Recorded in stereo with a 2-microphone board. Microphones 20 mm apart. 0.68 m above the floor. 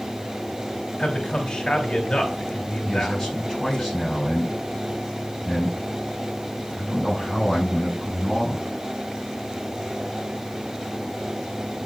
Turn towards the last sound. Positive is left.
turn(degrees=30)  # may be behind; listen again after turning